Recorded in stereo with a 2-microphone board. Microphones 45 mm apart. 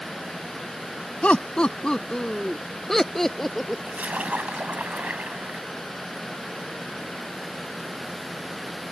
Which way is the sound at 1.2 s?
30° left (ahead or behind).